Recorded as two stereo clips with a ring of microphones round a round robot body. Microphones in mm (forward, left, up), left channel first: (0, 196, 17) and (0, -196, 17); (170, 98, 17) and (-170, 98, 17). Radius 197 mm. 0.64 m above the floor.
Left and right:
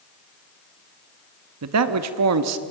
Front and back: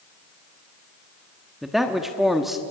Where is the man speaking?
90° right, 0.9 m.